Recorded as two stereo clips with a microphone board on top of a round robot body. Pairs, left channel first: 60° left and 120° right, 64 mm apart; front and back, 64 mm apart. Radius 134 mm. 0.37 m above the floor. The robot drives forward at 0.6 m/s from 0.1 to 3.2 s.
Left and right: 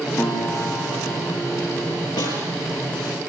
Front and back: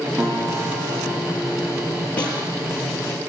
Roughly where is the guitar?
Behind left.